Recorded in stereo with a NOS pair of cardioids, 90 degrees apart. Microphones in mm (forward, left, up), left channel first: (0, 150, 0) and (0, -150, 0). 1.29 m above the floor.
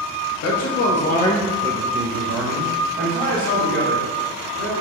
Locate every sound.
0.4 s a man speaking: 60° left, 1.0 m; by 4.7 s 75° right, 3 m